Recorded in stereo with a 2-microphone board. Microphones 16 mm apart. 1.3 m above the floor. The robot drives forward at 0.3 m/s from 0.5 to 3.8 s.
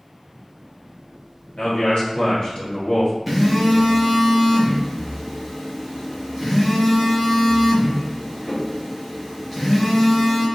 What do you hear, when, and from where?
1.6 s a man speaking: 65° left (ahead or behind), 1.3 m; by 3.1 s 55° left (ahead or behind), 1.5 m
3.3 s a phone buzzing: 5° right (ahead or behind), 0.9 m